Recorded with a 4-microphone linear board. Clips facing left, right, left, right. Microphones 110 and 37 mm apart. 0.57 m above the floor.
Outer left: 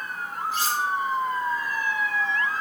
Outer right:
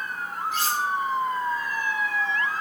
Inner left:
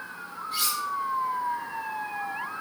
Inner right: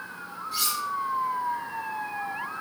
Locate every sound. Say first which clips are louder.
0.5 s cutlery clinking: even, even; 40° left (ahead or behind), 3 m